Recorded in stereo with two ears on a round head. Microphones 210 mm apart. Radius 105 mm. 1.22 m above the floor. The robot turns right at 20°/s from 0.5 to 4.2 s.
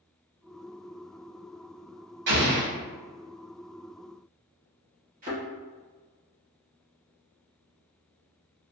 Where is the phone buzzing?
No phone buzzing in this recording.